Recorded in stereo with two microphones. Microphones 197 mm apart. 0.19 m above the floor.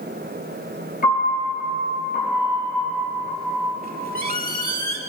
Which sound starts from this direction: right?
A squeak, at 3.8 s.